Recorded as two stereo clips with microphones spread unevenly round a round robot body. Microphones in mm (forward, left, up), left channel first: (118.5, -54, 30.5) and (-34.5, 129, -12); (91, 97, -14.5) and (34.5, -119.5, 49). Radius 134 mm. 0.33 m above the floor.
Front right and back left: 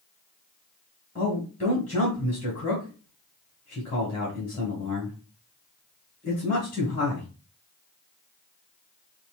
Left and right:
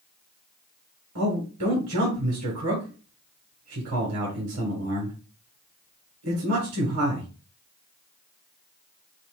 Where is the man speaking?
115° right, 1.8 m.